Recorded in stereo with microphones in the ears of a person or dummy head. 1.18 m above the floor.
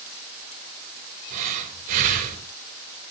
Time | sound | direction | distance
1.3 | breathing | 45° right (ahead or behind) | 1.5 m